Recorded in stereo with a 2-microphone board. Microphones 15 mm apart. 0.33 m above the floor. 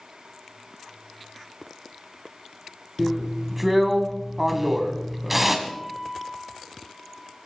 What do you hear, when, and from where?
3.0 s a drill: 10° right (ahead or behind), 1.7 m
5.7 s a guitar: 15° right (ahead or behind), 3 m